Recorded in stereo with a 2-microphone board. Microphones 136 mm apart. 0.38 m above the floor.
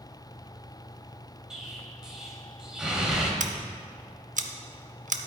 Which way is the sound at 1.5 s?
5° right (ahead or behind).